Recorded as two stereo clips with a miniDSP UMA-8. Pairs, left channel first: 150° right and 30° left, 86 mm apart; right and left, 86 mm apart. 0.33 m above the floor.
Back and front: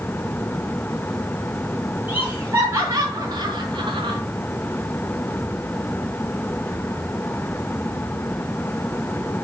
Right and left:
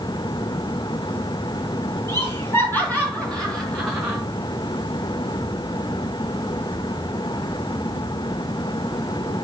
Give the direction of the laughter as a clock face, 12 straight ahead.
1 o'clock.